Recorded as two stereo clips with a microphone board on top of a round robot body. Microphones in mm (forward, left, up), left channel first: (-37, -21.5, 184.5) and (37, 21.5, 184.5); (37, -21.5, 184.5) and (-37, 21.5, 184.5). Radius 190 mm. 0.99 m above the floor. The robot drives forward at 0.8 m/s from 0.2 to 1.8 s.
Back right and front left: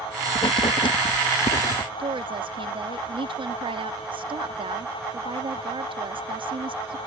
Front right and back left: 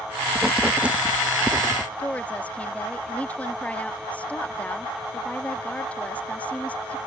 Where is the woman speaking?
45° left.